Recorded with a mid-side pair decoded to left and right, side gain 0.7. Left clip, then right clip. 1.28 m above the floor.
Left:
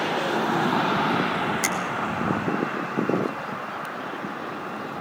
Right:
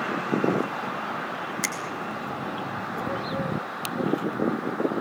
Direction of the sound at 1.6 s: 5° left.